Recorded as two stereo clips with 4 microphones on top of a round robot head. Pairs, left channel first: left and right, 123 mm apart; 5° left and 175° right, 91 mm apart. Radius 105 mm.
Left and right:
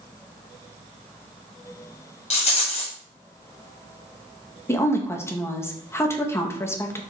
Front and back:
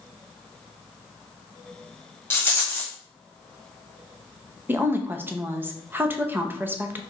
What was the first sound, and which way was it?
A rattle, 70° left.